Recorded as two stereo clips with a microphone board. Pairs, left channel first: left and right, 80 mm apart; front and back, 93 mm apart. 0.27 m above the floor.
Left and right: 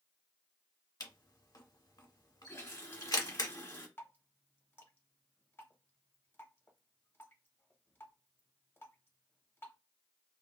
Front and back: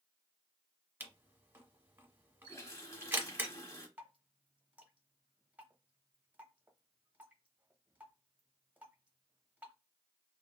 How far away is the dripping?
About 0.9 m.